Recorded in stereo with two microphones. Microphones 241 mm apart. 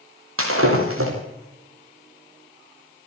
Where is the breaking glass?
70° right (ahead or behind), 7 m.